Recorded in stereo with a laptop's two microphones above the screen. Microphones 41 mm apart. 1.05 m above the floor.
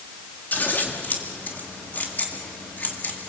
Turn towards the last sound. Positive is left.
turn(degrees=45)  # may be behind; listen again after turning